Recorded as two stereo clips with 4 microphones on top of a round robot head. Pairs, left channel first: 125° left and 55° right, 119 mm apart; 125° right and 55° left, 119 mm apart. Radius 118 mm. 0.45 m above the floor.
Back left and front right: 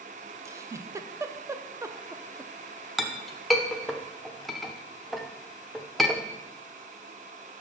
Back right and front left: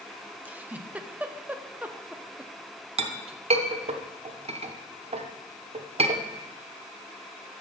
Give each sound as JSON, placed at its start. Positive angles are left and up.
{"t": 0.5, "sound": "a giggle", "azimuth_deg": -10, "distance_m": 0.8}
{"t": 3.0, "sound": "a clink", "azimuth_deg": 35, "distance_m": 1.0}